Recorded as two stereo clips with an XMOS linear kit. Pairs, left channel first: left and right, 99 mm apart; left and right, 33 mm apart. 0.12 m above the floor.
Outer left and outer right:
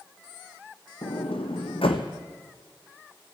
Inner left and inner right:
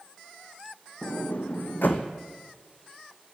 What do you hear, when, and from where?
1.0 s a sliding door: 80° left, 1.1 m